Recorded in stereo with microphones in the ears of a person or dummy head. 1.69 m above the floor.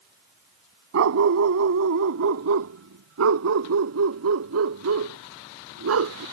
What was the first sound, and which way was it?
A dog barking, 65° right (ahead or behind).